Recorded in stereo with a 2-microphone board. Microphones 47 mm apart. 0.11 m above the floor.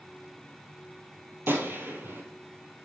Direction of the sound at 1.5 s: 50° right (ahead or behind).